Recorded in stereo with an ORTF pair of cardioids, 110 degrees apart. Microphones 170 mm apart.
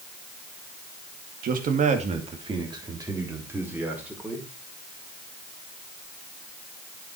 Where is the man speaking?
60° right, 2.5 m; by 4.5 s 5° right, 5.5 m.